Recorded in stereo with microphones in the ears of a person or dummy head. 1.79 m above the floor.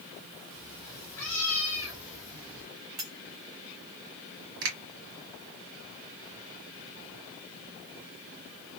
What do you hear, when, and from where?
0.5 s a cat meowing: 25° left (ahead or behind), 1.8 m; by 2.7 s 35° right (ahead or behind), 2 m
3.0 s cutlery clinking: 25° right (ahead or behind), 1.0 m
4.6 s a finger snap: 65° right (ahead or behind), 2 m